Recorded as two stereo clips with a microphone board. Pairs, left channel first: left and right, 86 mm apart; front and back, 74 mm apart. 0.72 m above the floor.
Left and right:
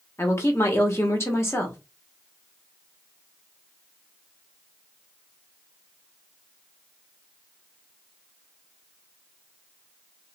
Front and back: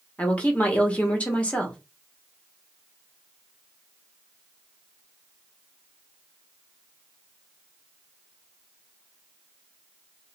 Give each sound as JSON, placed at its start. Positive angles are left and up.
{"t": 0.2, "sound": "a woman speaking", "azimuth_deg": 60, "distance_m": 0.9}